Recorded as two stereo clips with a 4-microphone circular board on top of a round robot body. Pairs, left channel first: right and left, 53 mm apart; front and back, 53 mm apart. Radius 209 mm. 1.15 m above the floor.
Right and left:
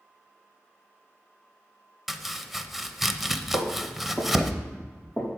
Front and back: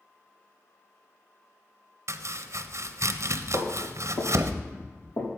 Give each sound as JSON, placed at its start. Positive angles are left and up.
{"t": 2.1, "sound": "chopping", "azimuth_deg": 175, "distance_m": 0.8}
{"t": 3.5, "sound": "footsteps", "azimuth_deg": 25, "distance_m": 3.5}